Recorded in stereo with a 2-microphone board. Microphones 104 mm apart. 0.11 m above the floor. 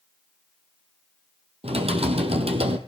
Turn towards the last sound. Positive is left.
turn(degrees=-70)  # may be behind; listen again after turning